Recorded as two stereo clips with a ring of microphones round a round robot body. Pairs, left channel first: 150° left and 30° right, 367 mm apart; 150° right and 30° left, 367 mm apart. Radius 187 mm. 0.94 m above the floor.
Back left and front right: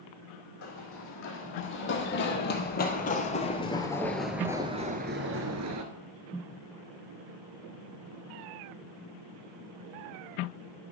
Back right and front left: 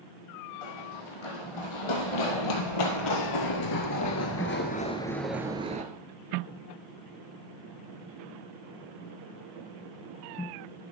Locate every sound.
0.6 s running footsteps: 155° right, 3 m; by 5.8 s 30° right, 1.1 m